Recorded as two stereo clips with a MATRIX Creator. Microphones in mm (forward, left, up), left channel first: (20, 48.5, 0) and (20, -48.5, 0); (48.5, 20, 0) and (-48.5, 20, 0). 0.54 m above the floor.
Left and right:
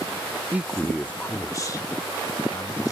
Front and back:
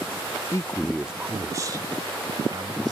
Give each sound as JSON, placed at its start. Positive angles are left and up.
{"t": 0.5, "sound": "a man speaking", "azimuth_deg": -30}